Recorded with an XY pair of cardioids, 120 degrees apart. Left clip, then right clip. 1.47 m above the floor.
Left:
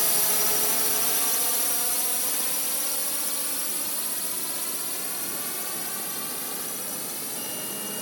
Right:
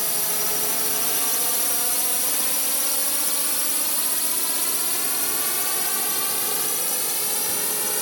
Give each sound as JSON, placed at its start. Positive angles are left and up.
{"t": 0.0, "sound": "a drone", "azimuth_deg": 5}